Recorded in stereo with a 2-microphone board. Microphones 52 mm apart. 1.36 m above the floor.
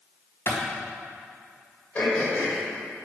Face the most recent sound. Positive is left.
turn(degrees=25)  # may be behind; listen again after turning